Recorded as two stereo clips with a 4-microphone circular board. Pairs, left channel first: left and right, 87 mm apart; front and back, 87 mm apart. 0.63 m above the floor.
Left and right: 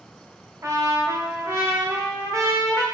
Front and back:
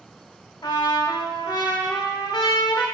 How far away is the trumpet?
About 0.6 m.